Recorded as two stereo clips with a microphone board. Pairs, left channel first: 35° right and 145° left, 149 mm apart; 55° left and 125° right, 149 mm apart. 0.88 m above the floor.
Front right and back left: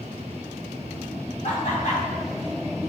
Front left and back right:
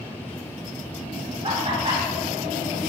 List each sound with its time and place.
1.4 s laughter: 70° right, 2 m